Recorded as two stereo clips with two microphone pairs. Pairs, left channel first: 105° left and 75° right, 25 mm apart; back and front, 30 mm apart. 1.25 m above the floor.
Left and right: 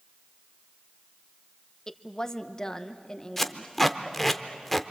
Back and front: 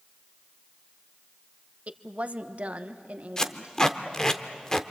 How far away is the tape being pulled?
About 0.9 m.